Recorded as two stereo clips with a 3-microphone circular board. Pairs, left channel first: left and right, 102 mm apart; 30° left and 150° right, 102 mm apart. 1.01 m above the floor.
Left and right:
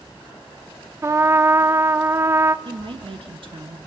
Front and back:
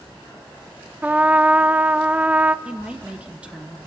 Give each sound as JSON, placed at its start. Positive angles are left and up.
{"t": 1.0, "sound": "a trumpet", "azimuth_deg": -95, "distance_m": 0.5}
{"t": 2.6, "sound": "a woman speaking", "azimuth_deg": -75, "distance_m": 1.4}